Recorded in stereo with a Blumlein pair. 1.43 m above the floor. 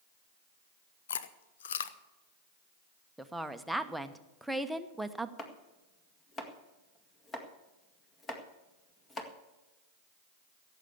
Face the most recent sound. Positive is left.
turn(degrees=20)